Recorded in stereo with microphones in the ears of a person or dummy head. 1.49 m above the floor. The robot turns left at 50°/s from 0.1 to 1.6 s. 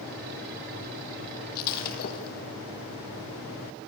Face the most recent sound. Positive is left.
turn(degrees=55)  # may be behind; listen again after turning